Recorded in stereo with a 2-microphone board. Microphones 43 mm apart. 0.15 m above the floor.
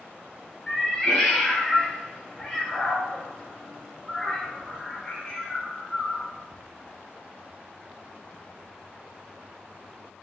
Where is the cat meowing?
10° left (ahead or behind), 0.6 m.